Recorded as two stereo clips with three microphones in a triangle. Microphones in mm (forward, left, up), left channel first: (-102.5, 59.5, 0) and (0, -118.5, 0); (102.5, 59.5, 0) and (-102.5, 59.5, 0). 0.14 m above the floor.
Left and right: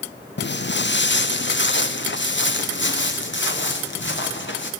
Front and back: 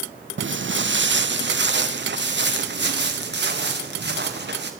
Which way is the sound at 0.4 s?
155° left.